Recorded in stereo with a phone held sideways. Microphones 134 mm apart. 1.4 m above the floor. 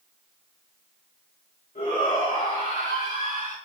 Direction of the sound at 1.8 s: 90° left.